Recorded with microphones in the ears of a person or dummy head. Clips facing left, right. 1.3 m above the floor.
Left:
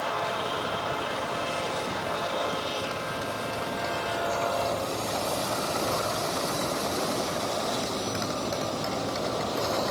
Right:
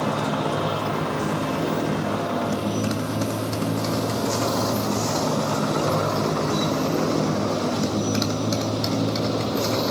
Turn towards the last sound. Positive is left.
turn(degrees=-45)  # may be behind; listen again after turning